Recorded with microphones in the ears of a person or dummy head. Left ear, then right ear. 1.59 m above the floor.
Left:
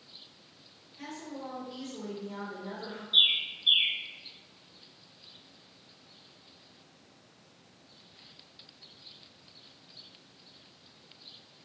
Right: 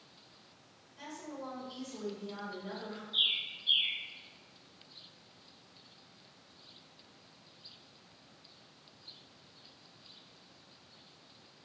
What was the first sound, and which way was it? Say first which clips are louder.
A woman speaking: left 3 dB; 65° right (ahead or behind).